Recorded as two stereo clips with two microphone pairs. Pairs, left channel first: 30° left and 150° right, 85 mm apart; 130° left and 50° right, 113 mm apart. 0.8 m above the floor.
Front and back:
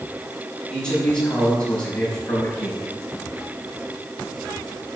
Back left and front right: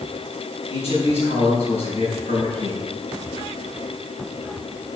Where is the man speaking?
105° left, 5 m.